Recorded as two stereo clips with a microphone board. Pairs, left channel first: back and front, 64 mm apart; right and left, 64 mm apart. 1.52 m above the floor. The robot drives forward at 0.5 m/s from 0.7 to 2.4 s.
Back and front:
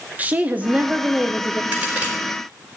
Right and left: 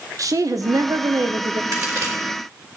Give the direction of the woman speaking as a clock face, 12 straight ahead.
10 o'clock.